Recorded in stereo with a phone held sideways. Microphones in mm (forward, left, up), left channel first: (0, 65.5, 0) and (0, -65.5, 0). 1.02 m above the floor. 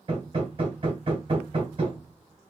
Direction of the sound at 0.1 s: 45° right (ahead or behind).